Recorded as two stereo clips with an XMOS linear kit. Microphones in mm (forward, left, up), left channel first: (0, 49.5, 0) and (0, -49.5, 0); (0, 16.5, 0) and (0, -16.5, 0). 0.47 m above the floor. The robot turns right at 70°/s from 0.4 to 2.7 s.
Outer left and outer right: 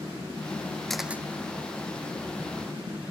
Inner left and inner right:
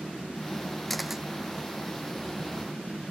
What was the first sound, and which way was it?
A camera shutter, 5° left (ahead or behind).